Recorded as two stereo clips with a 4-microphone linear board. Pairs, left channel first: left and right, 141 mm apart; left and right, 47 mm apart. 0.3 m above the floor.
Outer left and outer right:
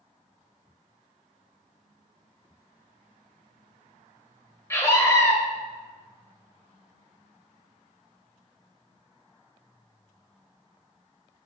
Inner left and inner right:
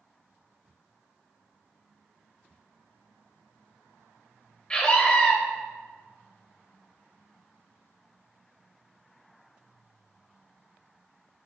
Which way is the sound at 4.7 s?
20° left (ahead or behind).